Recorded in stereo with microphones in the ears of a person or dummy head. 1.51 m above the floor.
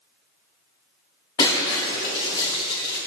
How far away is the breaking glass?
About 3 m.